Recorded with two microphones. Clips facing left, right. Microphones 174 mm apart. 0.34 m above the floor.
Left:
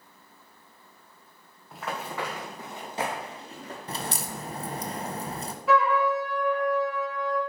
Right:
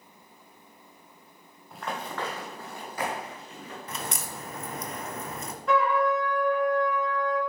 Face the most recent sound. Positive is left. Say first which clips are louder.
# left 1 dB
turn(degrees=5)  # may be behind; listen again after turning